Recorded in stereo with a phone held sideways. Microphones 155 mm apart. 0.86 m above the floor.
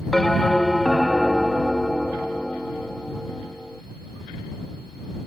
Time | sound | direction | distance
0.1 | a bell | centre (ahead or behind) | ?